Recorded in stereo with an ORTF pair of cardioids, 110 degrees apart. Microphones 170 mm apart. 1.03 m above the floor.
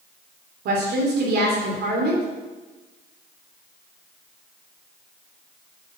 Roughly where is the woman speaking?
Right.